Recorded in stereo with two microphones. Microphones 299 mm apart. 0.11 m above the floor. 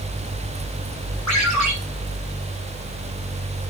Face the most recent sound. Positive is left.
turn(degrees=65)  # may be behind; listen again after turning